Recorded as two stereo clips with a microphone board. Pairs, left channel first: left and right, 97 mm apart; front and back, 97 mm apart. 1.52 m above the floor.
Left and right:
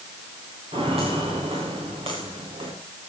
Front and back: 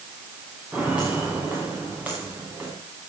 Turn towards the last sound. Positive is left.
turn(degrees=-110)